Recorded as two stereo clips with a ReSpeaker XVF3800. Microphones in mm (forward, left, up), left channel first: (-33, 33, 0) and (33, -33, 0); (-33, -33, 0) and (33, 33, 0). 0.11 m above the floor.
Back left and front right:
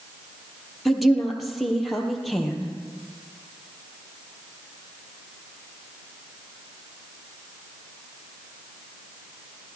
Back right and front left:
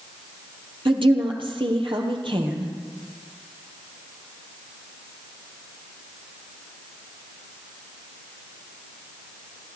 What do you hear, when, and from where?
0.8 s a woman speaking: 45° left, 3 m